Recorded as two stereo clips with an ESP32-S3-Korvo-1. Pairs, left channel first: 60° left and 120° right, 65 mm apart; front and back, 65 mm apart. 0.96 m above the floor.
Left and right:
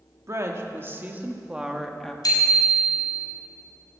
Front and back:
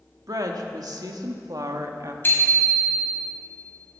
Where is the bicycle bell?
55° left, 4.5 m.